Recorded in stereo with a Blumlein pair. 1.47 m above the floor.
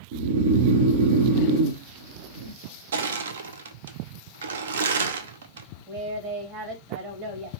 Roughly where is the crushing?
Ahead right.